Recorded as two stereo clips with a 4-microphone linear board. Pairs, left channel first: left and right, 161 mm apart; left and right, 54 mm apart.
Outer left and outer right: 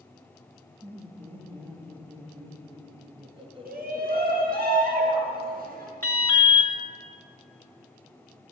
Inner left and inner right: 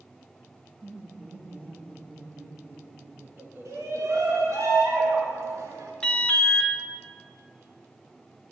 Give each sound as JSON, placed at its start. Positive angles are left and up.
{"t": 0.8, "sound": "laughter", "side_deg": -35, "distance_m": 1.8}
{"t": 3.6, "sound": "a shout", "side_deg": -65, "distance_m": 4.5}
{"t": 6.0, "sound": "an alarm", "side_deg": 15, "distance_m": 1.8}